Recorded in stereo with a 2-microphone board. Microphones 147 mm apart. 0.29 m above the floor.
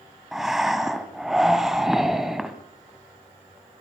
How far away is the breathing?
About 1.5 m.